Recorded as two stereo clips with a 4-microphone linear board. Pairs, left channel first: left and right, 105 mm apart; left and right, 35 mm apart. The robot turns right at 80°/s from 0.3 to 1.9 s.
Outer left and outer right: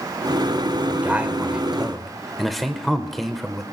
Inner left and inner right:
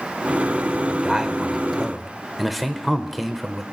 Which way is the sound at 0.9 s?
20° right (ahead or behind).